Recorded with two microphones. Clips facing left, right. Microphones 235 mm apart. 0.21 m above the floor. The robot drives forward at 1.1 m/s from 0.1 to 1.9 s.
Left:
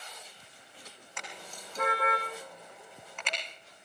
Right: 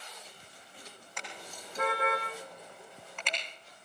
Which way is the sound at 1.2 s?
5° left (ahead or behind).